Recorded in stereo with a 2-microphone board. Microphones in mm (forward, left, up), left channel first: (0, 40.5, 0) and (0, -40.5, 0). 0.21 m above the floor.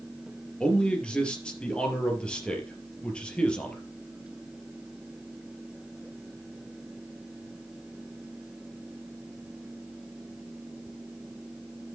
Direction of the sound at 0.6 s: 10° left (ahead or behind).